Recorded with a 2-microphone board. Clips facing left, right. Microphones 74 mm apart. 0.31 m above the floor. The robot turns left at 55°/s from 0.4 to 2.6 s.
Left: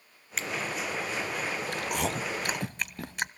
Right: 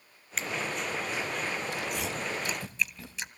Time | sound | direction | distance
0.4 | a finger snap | centre (ahead or behind) | 3 m
1.7 | chewing | 60° left (ahead or behind) | 0.7 m